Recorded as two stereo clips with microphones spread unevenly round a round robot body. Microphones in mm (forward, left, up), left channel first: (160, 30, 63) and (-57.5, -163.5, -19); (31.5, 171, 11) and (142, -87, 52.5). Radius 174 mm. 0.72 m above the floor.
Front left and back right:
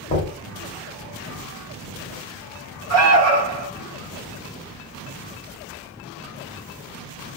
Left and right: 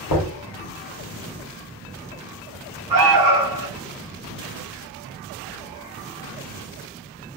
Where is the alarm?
105° right, 1.2 m.